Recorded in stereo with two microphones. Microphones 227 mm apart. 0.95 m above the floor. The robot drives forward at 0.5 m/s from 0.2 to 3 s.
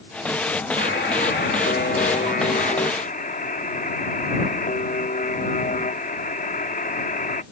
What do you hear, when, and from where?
0.8 s a buzzer: 55° left (ahead or behind); by 7.4 s 40° left (ahead or behind)